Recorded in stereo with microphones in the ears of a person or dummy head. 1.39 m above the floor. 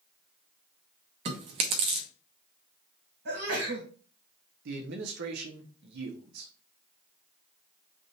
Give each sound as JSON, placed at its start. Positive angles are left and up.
{"t": 1.2, "sound": "chewing", "side_deg": -45, "distance_m": 0.9}
{"t": 3.2, "sound": "a sneeze", "side_deg": -55, "distance_m": 2.0}
{"t": 4.7, "sound": "a man speaking", "side_deg": -60, "distance_m": 0.9}